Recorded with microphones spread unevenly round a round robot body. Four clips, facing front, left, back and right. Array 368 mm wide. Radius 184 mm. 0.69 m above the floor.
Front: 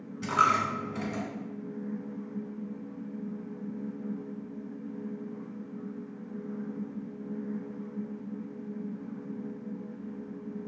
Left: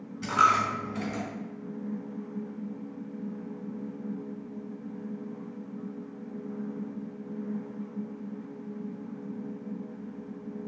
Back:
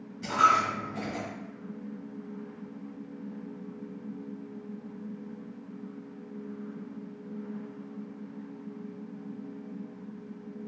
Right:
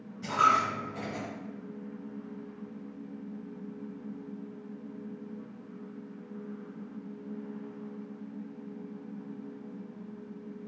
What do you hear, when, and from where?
0.2 s a dropped coin: 40° left, 1.2 m